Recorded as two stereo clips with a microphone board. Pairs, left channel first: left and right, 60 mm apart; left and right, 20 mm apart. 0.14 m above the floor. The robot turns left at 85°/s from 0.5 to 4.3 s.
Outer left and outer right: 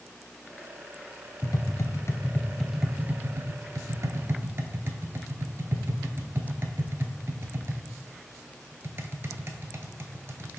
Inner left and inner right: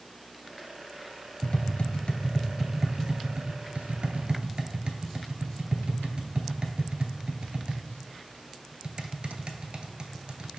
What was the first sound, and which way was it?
Tapping, 60° left (ahead or behind).